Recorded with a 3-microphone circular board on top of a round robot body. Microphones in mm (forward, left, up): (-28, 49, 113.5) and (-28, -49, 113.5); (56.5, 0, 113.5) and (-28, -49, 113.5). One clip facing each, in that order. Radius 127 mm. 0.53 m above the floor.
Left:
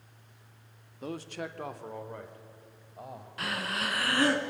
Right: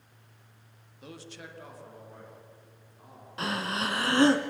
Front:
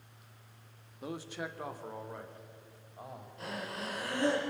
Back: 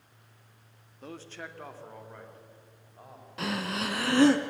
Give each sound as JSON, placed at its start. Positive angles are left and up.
{"t": 1.0, "sound": "a man speaking", "azimuth_deg": 105, "distance_m": 1.5}
{"t": 3.4, "sound": "breathing", "azimuth_deg": -155, "distance_m": 1.1}